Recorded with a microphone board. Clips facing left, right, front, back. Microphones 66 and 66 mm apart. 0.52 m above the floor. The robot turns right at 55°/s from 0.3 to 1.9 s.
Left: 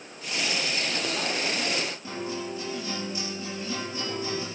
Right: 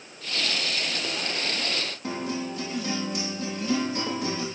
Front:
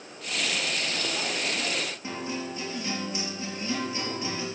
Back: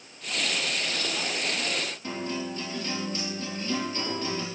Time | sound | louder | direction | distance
2.0 | a guitar | right 2 dB, back 1 dB | 75° right | 5 m